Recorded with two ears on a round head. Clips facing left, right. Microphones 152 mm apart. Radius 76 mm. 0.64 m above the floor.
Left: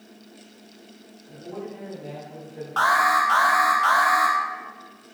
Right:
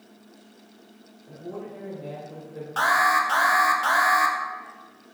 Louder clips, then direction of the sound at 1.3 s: Left 1 dB; 55° right (ahead or behind).